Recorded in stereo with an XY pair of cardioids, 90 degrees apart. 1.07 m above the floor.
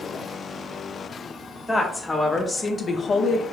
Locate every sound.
1.7 s a woman speaking: 15° left, 1.3 m; by 3.4 s 65° left, 0.6 m